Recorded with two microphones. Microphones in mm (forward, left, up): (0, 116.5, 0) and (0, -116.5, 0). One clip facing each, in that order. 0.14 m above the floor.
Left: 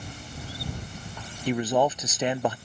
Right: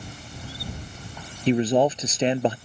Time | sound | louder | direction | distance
1.5 | a man speaking | right 4 dB | 25° right (ahead or behind) | ?